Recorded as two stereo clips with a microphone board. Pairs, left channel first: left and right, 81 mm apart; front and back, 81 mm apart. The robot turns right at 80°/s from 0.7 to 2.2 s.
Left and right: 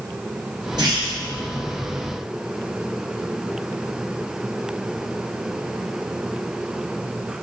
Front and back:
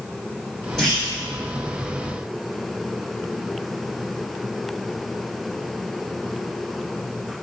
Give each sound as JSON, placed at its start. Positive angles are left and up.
{"t": 0.8, "sound": "a clunk", "azimuth_deg": -85, "distance_m": 1.9}